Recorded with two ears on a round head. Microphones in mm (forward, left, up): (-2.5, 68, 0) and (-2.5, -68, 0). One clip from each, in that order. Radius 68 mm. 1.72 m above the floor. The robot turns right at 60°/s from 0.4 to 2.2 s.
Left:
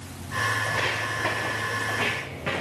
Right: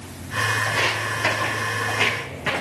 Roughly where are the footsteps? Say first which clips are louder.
Right 4 dB; centre.